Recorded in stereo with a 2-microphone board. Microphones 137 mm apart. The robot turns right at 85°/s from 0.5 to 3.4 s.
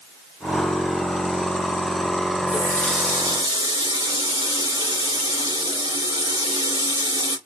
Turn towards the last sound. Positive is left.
turn(degrees=-140)